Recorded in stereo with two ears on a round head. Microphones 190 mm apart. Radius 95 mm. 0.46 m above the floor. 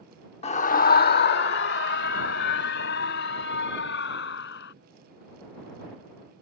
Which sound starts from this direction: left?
A scream, at 0.4 s.